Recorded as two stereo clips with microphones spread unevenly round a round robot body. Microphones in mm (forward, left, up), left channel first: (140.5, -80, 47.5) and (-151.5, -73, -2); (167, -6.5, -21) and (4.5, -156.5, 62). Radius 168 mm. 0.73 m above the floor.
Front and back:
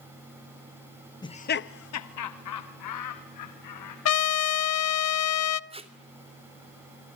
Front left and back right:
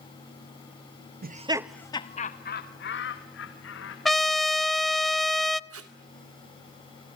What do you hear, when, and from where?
1.2 s laughter: 85° right, 0.9 m; by 4.0 s 40° left, 3 m
4.0 s a trumpet: 40° right, 0.9 m
5.7 s tape being pulled: 115° right, 3 m